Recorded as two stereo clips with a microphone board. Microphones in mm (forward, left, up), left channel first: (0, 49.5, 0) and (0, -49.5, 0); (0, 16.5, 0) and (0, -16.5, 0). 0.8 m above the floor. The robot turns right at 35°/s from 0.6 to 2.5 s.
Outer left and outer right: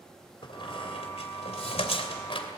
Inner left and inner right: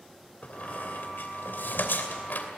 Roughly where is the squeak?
Left.